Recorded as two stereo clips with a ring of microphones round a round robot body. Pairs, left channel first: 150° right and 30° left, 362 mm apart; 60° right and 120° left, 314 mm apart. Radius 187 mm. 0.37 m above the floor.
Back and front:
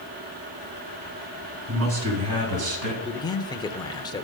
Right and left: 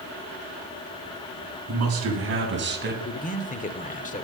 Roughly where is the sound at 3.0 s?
Right.